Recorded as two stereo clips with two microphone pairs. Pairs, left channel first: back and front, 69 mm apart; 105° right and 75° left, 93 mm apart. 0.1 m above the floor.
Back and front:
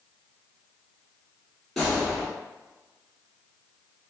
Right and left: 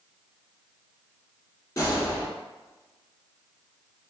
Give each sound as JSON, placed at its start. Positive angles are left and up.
{"t": 1.8, "sound": "a gunshot", "azimuth_deg": -95, "distance_m": 1.4}